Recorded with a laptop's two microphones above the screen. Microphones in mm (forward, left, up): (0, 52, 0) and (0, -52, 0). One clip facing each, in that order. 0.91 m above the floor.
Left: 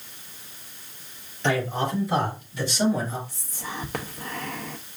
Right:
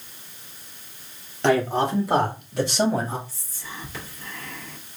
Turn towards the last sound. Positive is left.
turn(degrees=60)  # may be behind; listen again after turning